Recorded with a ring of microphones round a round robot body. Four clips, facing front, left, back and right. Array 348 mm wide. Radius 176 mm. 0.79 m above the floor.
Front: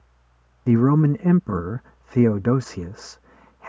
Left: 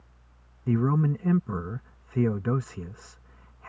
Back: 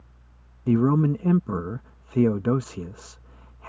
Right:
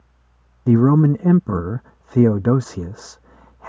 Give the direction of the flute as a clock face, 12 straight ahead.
No flute in this recording.